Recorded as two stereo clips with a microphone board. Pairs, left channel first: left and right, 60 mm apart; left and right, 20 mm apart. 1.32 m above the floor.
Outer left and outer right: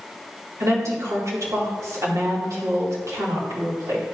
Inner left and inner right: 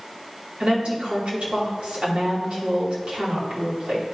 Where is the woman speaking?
65° right (ahead or behind), 3 m.